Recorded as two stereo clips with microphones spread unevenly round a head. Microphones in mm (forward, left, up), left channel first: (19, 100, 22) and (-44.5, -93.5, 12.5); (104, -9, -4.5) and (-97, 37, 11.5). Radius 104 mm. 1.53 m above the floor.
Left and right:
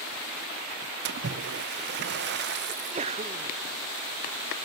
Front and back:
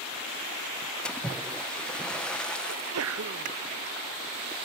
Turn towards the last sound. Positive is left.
turn(degrees=-170)